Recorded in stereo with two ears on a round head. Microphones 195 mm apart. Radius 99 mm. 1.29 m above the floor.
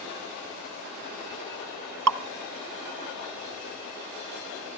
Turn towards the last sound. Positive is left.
turn(degrees=-85)